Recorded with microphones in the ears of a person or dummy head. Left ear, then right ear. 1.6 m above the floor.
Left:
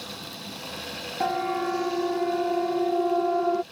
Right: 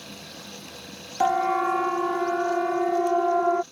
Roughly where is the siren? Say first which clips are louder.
Right 5 dB; right.